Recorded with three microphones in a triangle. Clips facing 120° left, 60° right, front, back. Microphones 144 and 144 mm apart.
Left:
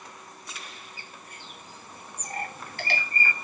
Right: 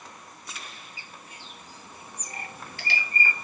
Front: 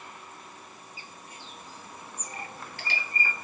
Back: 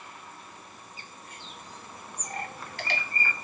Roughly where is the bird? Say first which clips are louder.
Even, even; behind left.